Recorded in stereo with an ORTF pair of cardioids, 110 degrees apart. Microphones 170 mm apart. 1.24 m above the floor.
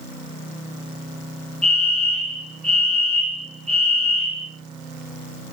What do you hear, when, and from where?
1.6 s a fire alarm: 5° left, 4 m